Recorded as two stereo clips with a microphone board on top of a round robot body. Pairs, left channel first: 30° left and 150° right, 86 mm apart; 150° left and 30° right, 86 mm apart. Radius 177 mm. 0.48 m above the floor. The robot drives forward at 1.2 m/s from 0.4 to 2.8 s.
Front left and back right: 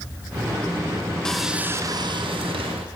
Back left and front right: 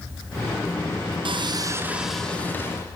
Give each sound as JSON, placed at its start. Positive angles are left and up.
{"t": 1.2, "sound": "sawing", "azimuth_deg": -55, "distance_m": 1.0}